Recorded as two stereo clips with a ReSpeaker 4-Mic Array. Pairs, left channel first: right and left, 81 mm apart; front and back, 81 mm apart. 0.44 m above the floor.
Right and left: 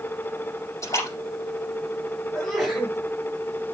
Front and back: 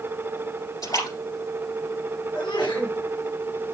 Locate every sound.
0.8 s a splash: 40° right, 7 m
2.3 s a sneeze: 5° right, 3.5 m